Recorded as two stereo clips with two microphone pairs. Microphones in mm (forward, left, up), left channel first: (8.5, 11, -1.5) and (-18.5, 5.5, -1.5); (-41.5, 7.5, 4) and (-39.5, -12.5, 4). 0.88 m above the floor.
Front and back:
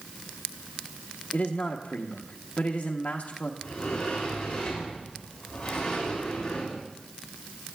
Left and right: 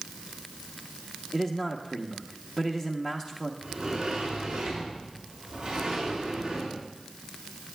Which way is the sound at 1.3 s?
20° right.